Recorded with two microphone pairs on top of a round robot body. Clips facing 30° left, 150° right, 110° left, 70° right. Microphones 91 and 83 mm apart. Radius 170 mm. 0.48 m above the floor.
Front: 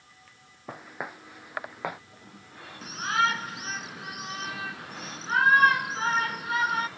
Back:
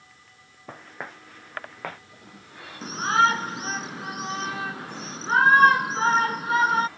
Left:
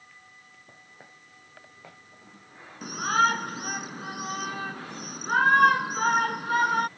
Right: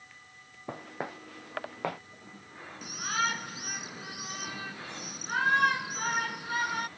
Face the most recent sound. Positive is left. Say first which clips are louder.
# back 5 dB, left 8 dB
turn(degrees=155)